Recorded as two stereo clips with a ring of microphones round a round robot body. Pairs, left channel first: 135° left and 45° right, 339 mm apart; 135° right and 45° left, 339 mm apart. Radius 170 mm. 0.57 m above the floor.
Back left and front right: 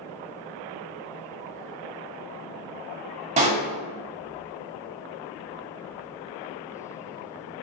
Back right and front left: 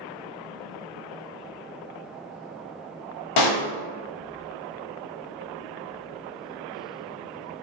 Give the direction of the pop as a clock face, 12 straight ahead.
4 o'clock.